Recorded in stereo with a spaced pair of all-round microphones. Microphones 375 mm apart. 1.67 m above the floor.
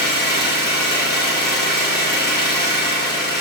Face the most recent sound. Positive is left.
turn(degrees=30)  # may be behind; listen again after turning